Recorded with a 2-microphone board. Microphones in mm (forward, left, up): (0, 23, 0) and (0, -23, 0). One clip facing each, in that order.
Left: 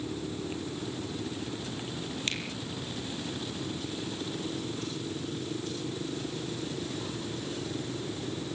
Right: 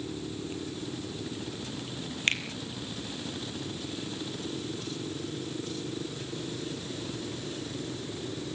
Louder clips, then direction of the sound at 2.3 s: Right 8 dB; 40° right (ahead or behind).